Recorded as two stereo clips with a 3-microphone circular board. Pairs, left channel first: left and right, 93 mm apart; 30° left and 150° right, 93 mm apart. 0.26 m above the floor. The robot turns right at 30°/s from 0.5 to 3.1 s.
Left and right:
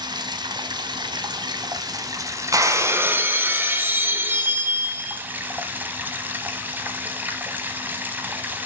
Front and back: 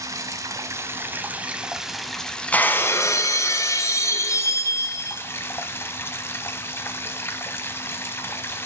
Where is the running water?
105° right, 0.8 m; by 8.7 s 30° right, 0.8 m.